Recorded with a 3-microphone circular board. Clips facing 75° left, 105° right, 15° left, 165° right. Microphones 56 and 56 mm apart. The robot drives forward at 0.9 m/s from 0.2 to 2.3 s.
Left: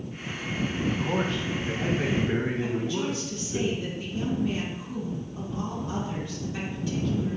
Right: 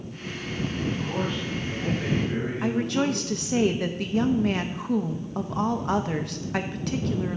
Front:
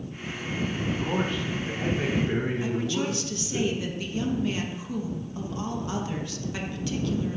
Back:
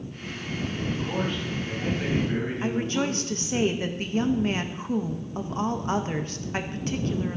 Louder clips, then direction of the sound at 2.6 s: Right 4 dB, back 1 dB; 115° right.